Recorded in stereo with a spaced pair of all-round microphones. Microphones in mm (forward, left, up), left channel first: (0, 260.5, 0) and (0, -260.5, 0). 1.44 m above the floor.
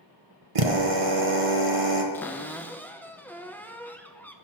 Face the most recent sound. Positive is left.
turn(degrees=5)  # may be behind; listen again after turning